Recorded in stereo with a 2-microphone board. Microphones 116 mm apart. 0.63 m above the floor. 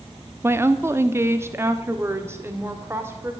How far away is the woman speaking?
About 0.7 m.